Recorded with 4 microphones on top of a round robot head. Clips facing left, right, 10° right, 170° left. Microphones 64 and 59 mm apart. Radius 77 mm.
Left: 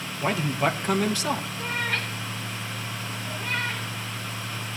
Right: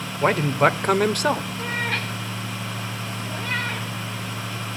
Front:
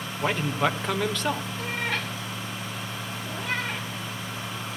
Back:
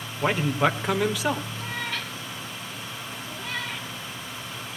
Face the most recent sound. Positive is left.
turn(degrees=-50)